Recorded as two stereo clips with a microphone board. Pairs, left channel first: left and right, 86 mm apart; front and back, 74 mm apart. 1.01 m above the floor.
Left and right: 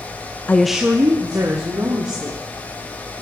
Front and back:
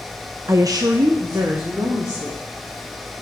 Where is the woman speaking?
150° left, 0.5 m; by 2.4 s 130° right, 2.5 m.